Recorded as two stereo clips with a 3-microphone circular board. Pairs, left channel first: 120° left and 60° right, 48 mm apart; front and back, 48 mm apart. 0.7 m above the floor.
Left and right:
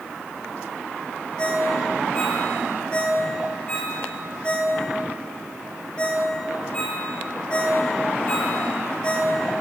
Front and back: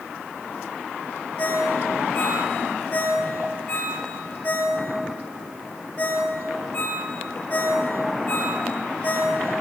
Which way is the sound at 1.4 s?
55° left.